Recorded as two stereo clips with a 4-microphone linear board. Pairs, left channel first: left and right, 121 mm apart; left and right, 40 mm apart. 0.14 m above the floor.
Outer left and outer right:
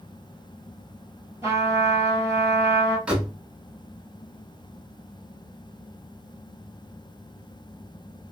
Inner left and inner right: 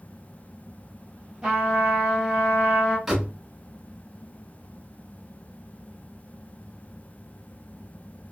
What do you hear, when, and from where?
1.4 s a trumpet: 20° right (ahead or behind), 1.5 m
3.1 s a door slam: 10° right (ahead or behind), 1.1 m